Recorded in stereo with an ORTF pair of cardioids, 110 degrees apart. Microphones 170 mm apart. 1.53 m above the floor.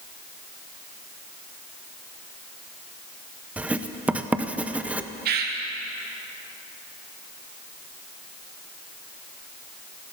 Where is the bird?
65° right, 2 m.